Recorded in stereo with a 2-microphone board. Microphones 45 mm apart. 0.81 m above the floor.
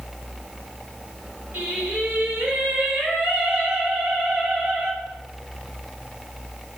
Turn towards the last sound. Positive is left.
turn(degrees=-45)  # may be behind; listen again after turning